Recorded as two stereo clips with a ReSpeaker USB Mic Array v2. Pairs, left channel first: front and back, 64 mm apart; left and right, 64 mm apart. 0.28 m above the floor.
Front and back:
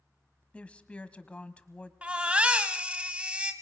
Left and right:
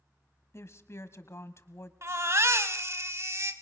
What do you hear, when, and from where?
0.5 s a woman speaking: 65° left, 1.4 m
2.0 s a baby crying: 115° right, 1.4 m